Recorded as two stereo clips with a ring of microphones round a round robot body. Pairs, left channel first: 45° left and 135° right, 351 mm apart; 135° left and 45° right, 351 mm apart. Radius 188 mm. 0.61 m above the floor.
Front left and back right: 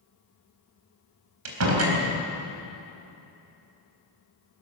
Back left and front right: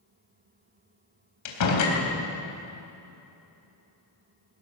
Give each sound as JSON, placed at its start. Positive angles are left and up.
{"t": 1.4, "sound": "a door slam", "azimuth_deg": 175, "distance_m": 3.5}